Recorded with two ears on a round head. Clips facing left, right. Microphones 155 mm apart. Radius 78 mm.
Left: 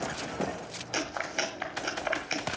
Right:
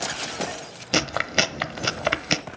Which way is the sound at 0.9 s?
80° right.